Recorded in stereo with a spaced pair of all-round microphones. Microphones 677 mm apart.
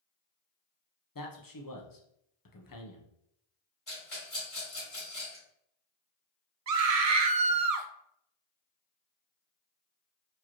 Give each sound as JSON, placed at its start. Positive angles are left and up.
{"t": 1.1, "sound": "a man speaking", "side_deg": 30, "distance_m": 0.7}
{"t": 3.9, "sound": "a rattle", "side_deg": 50, "distance_m": 2.5}
{"t": 6.7, "sound": "a scream", "side_deg": -65, "distance_m": 0.6}